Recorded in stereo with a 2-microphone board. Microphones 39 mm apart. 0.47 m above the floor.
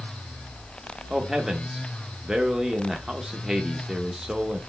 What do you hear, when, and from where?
1.1 s a man speaking: 20° right (ahead or behind), 0.7 m